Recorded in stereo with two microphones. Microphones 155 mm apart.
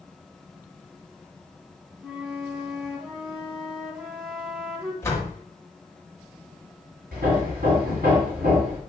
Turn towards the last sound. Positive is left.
turn(degrees=-75)  # may be behind; listen again after turning